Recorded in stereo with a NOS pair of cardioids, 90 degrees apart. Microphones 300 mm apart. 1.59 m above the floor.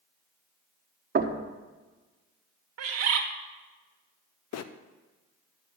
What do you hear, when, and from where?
1.1 s knocking: 30° right, 1.2 m
2.8 s a bird: 60° right, 1.7 m
4.5 s a bird: 60° left, 0.7 m